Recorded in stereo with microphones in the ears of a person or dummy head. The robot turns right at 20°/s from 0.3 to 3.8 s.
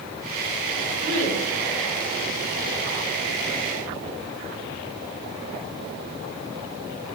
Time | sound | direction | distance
1.0 | a woman speaking | 55° right (ahead or behind) | 2 m